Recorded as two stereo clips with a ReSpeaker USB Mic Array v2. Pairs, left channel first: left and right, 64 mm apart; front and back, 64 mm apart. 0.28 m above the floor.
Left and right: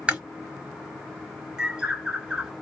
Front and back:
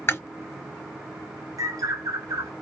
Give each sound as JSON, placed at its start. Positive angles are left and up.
{"t": 0.1, "sound": "chewing", "azimuth_deg": -25, "distance_m": 1.4}
{"t": 1.6, "sound": "a bird", "azimuth_deg": -170, "distance_m": 1.0}